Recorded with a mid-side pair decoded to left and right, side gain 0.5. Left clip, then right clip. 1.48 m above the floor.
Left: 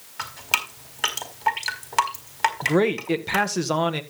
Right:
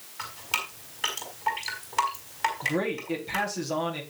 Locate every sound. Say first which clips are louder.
0.2 s dripping: left 6 dB; 50° left, 4 m
2.6 s a man speaking: left 7 dB; 65° left, 1.8 m